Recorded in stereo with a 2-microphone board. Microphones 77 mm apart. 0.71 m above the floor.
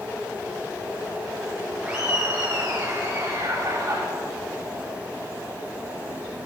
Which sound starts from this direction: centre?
Laughter, at 1.8 s.